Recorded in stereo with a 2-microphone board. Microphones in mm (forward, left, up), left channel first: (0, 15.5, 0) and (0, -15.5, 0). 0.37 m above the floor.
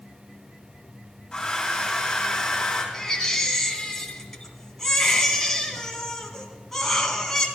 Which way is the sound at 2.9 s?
15° left (ahead or behind).